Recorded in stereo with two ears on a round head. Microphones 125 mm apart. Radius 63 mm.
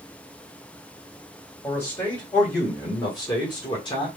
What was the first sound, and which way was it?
A man speaking, 25° left (ahead or behind).